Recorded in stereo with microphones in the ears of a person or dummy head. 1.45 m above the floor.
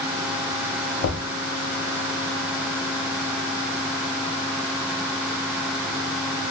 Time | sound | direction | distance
1.0 | knocking | 65° left (ahead or behind) | 0.7 m